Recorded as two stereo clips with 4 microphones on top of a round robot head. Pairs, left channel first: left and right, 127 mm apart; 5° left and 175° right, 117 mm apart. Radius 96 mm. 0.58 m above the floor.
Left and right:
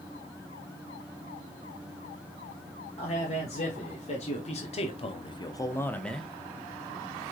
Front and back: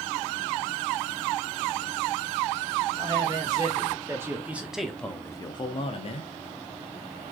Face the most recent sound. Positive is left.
turn(degrees=0)